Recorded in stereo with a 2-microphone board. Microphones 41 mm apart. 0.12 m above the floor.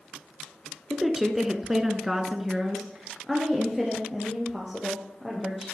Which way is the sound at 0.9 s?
5° right (ahead or behind).